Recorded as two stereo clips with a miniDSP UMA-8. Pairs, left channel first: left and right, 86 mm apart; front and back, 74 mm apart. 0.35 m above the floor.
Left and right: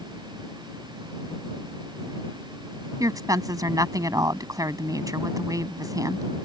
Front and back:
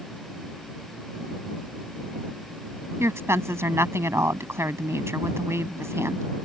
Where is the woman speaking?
135° right.